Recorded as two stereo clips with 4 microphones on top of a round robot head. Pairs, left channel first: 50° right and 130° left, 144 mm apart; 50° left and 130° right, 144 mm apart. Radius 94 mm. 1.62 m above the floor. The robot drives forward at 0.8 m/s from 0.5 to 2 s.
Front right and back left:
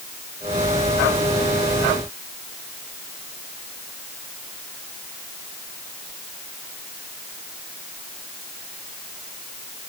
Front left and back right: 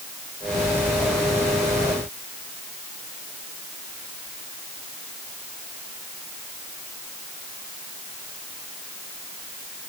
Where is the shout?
No shout in this recording.